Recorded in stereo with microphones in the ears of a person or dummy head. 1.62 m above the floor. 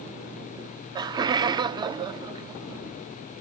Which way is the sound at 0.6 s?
20° right (ahead or behind).